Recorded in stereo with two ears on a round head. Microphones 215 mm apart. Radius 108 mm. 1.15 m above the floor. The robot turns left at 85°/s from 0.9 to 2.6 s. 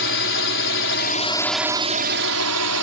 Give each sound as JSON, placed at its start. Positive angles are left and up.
{"t": 0.0, "sound": "a drone", "azimuth_deg": 55}